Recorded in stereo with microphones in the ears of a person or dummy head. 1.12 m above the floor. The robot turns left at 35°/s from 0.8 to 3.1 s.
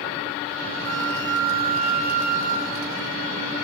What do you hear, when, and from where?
0.8 s a flute: 80° right, 4 m; by 3.0 s 155° right, 4 m